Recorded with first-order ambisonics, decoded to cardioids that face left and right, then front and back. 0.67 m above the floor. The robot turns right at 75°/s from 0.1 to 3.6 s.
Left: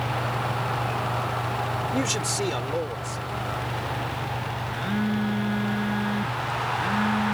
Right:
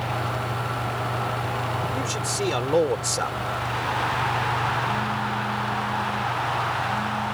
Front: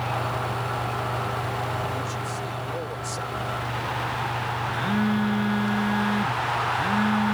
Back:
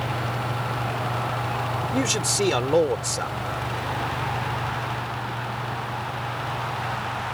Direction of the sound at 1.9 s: 150° left.